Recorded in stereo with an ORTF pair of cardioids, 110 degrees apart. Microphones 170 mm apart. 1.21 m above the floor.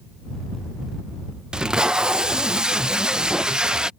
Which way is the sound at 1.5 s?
5° right.